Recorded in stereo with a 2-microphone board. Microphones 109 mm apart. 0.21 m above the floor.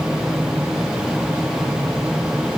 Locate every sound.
Only background noise.